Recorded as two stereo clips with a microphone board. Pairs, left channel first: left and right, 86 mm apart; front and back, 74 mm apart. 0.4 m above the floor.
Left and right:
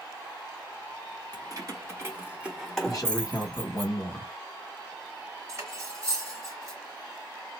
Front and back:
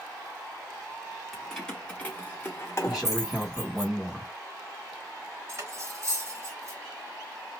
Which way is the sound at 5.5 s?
135° right.